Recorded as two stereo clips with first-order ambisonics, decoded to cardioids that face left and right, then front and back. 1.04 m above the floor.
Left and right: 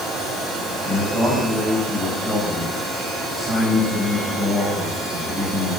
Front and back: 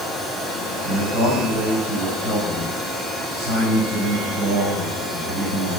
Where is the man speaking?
165° left, 6.5 m.